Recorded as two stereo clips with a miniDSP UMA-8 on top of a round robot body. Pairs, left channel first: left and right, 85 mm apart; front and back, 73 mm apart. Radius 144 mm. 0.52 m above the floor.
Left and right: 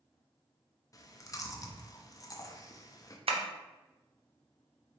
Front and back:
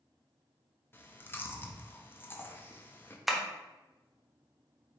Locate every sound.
0.9 s chewing: 55° left, 0.8 m
3.3 s tapping: 90° right, 0.8 m